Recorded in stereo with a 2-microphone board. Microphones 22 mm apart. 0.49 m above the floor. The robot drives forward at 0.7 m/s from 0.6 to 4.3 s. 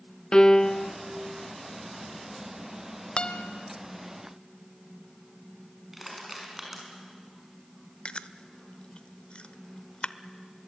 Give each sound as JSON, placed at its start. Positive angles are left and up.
{"t": 0.3, "sound": "a piano", "side_deg": 35, "distance_m": 0.7}
{"t": 3.2, "sound": "a guitar", "side_deg": 60, "distance_m": 1.0}
{"t": 5.9, "sound": "crushing", "side_deg": -10, "distance_m": 5.5}
{"t": 8.1, "sound": "chewing", "side_deg": 55, "distance_m": 0.7}